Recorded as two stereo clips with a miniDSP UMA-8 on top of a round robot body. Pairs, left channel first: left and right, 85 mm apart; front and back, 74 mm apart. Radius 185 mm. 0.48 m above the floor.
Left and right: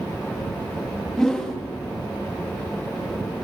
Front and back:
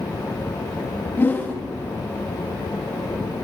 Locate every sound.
1.2 s a whoosh: 15° left, 1.4 m